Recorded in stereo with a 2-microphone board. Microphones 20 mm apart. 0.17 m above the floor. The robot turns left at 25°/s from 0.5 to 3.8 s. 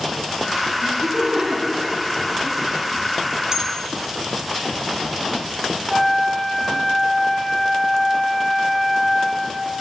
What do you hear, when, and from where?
0.8 s laughter: 40° right (ahead or behind), 1.3 m; by 2.6 s 10° right (ahead or behind), 1.3 m
3.5 s a bell: 35° right (ahead or behind), 0.9 m; by 3.8 s 40° right (ahead or behind), 0.9 m
5.9 s a flute: 5° left (ahead or behind), 0.8 m